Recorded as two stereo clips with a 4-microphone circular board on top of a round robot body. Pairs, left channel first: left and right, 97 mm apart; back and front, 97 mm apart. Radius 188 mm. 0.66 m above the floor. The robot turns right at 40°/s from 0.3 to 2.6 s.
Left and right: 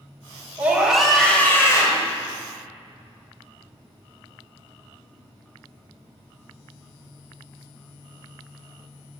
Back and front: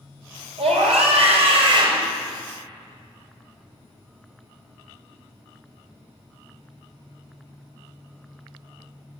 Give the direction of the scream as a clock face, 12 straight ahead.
1 o'clock.